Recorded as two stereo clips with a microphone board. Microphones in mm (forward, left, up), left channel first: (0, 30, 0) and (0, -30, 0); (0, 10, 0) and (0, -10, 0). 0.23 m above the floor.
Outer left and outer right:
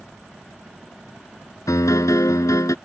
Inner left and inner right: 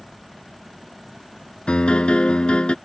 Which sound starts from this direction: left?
A piano, at 1.7 s.